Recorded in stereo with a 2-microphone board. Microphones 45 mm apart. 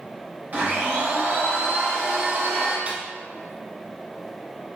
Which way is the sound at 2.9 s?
30° right (ahead or behind).